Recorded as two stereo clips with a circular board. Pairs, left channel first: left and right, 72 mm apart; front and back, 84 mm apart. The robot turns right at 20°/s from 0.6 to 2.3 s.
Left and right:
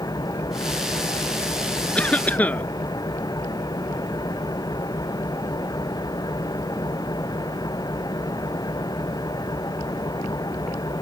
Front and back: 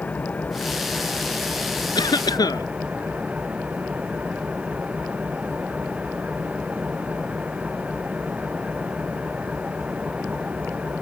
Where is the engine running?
70° left; by 11.0 s 105° left.